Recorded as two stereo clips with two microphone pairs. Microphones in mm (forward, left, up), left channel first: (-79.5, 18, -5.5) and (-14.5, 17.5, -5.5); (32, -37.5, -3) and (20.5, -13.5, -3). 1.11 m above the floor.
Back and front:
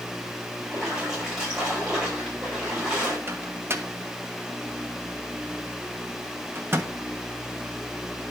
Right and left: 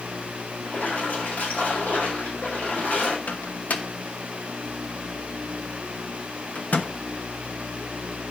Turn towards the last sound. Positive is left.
turn(degrees=-55)